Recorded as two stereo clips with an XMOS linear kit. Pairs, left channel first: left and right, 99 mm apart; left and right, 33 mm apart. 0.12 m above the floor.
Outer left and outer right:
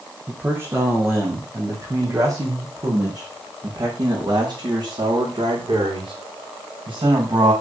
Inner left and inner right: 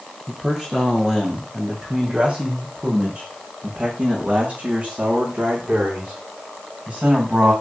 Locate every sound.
0.3 s a man speaking: 25° right (ahead or behind), 4.5 m; by 7.5 s 65° right (ahead or behind), 8 m